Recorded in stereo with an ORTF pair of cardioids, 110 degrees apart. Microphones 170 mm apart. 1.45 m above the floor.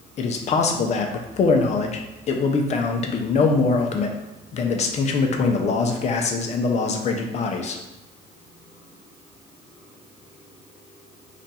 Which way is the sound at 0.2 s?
45° left.